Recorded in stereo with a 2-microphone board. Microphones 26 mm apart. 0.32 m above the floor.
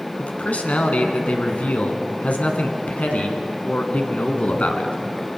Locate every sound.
0.2 s a man speaking: 70° left (ahead or behind), 2.5 m